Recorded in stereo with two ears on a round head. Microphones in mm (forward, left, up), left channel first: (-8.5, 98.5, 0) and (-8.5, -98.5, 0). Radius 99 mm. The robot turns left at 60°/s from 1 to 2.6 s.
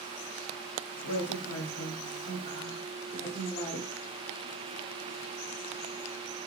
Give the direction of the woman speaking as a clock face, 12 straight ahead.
8 o'clock.